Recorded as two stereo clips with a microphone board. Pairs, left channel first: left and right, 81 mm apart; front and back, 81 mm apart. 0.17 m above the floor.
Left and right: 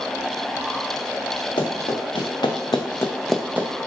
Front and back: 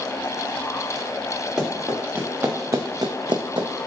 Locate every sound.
1.6 s running footsteps: 100° left, 1.4 m; by 3.9 s 140° right, 0.7 m